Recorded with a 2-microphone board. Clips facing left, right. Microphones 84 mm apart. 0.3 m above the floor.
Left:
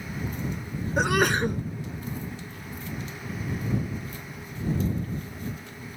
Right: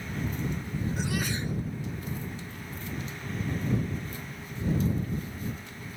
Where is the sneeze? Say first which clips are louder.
Left 14 dB; 65° left (ahead or behind).